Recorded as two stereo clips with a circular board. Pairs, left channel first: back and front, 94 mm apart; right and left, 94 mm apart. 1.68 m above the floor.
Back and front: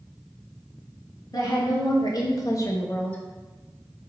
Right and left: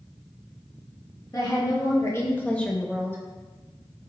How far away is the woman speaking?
About 1.5 m.